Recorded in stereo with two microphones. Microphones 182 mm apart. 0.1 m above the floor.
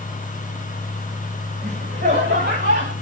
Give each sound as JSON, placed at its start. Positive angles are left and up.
{"t": 1.6, "sound": "laughter", "side_deg": -80, "distance_m": 7.5}